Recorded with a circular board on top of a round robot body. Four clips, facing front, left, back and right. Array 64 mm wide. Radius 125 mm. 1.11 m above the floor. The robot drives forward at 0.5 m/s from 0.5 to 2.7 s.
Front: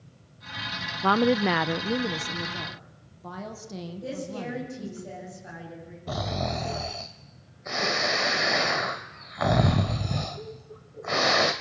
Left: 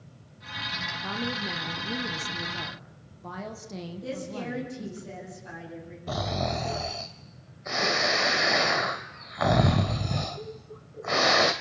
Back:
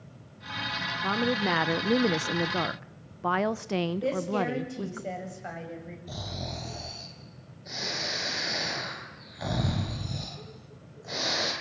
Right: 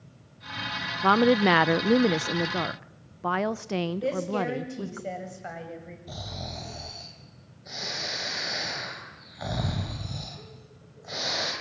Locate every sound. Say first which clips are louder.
1.0 s a woman speaking: right 16 dB, front 6 dB; 55° right, 0.6 m; by 5.0 s 140° right, 0.7 m
4.0 s a woman speaking: right 7 dB, back 6 dB; 130° right, 8 m
6.1 s snoring: left 12 dB, front 10 dB; 50° left, 1.0 m